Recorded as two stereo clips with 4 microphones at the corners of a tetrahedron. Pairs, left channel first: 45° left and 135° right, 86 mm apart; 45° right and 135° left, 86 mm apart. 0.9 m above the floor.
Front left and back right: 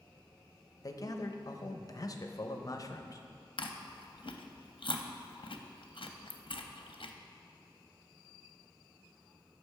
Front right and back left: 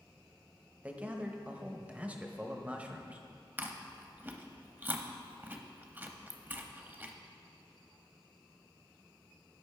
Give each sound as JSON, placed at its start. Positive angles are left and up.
{"t": 0.8, "sound": "a man speaking", "azimuth_deg": 70, "distance_m": 0.7}
{"t": 3.6, "sound": "chewing", "azimuth_deg": 65, "distance_m": 0.6}